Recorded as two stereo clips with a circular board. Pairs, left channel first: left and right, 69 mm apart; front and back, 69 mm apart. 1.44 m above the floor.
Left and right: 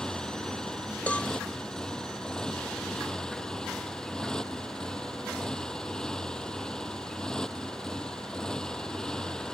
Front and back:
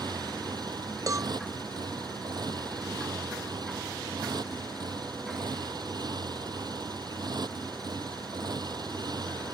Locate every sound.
0.0 s a motorcycle: 170° left
1.1 s a cowbell: 155° left